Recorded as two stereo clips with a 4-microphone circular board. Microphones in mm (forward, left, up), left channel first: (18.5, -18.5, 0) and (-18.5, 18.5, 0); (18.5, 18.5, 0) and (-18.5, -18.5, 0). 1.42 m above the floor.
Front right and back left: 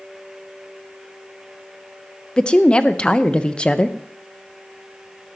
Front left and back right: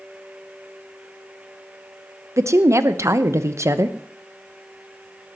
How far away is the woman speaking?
About 0.9 m.